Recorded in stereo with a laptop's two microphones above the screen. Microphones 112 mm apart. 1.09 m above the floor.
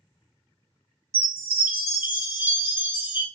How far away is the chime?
About 1.3 m.